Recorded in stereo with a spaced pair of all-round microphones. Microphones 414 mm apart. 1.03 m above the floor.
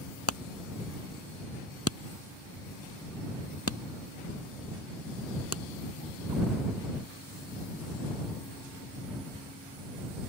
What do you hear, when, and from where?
0.3 s hammering: 35° left (ahead or behind)